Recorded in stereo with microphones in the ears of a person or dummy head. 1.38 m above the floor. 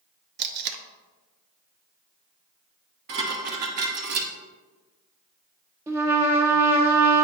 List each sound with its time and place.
0.4 s tape being pulled: 50° right (ahead or behind), 0.6 m
3.1 s dishes clattering: 50° right (ahead or behind), 1.0 m
5.9 s a trumpet: 10° right (ahead or behind), 0.9 m